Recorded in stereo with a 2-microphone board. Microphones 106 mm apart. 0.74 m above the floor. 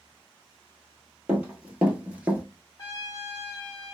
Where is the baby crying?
I don't hear a baby crying.